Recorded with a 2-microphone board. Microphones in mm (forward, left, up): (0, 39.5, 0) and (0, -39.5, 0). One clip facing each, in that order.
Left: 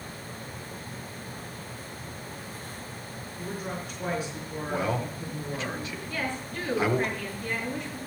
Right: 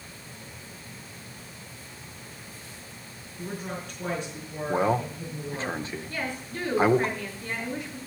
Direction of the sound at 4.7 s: 35° right (ahead or behind).